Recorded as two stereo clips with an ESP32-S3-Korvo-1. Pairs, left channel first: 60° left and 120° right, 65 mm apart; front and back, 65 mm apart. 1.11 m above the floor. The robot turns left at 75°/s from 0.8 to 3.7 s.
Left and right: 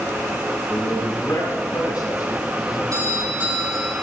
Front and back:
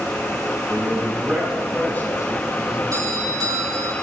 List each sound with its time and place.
0.7 s a man speaking: 145° left, 7 m; by 2.8 s 5° right, 7 m
2.9 s a doorbell: 150° right, 6 m; by 3.9 s 155° left, 6 m